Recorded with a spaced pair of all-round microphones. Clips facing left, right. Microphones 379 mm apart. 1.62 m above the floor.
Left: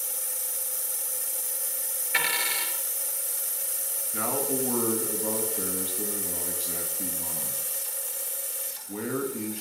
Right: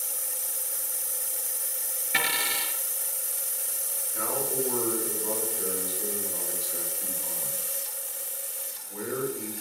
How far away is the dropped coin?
About 3 m.